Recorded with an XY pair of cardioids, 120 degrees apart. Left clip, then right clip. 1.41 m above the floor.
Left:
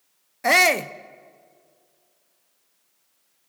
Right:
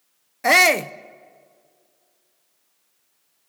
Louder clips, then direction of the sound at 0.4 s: Right 2 dB; 10° right.